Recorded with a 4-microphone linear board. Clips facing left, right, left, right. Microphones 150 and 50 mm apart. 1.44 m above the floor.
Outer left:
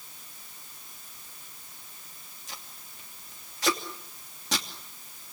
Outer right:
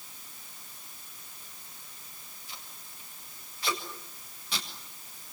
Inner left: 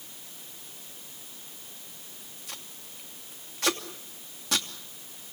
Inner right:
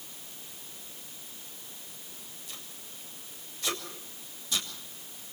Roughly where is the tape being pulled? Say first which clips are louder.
Outer left 3 dB, inner left 4 dB; left.